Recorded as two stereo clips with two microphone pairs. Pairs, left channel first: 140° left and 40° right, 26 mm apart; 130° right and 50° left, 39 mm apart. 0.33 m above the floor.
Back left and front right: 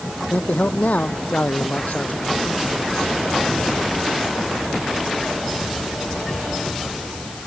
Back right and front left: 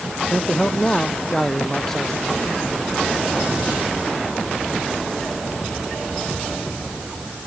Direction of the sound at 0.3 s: 155° left.